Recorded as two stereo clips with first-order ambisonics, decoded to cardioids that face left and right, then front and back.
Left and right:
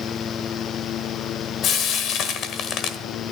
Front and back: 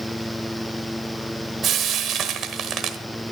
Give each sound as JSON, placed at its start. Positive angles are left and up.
{"t": 1.6, "sound": "frying", "azimuth_deg": 135, "distance_m": 1.2}